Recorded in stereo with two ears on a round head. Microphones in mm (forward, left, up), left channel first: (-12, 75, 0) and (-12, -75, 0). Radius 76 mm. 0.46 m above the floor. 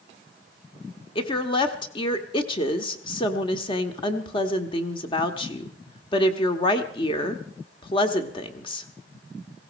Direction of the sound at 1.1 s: 30° left (ahead or behind).